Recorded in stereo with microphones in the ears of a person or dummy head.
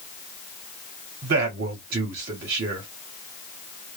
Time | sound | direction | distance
1.2 | a man speaking | 50° right (ahead or behind) | 1.0 m